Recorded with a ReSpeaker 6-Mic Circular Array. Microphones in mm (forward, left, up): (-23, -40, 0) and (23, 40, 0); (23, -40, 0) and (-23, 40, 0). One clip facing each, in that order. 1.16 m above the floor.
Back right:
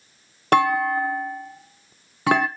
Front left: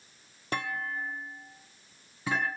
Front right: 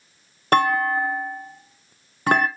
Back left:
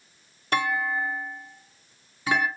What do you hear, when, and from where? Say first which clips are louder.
0.5 s a clunk: back right 16 dB, front right 7 dB; 100° right, 0.5 m